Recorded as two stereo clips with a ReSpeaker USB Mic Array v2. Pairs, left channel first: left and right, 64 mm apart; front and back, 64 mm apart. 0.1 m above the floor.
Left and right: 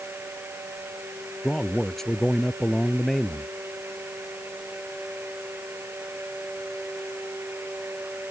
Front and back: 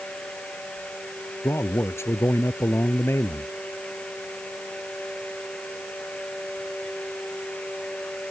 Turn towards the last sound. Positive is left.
turn(degrees=10)